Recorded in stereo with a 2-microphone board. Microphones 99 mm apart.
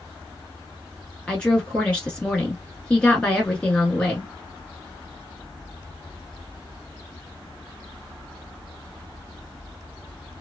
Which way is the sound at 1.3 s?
10° left (ahead or behind).